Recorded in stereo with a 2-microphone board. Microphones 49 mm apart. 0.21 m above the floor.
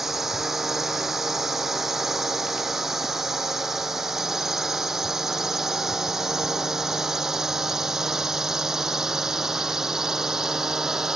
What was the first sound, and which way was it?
A drone, 5° right (ahead or behind).